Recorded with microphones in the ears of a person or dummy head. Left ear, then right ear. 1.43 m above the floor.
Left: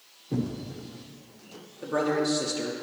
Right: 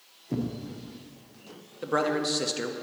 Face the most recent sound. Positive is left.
turn(degrees=-30)  # may be behind; listen again after turning